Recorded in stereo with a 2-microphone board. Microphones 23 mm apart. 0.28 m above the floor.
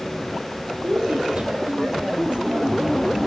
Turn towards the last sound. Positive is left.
turn(degrees=-50)  # may be behind; listen again after turning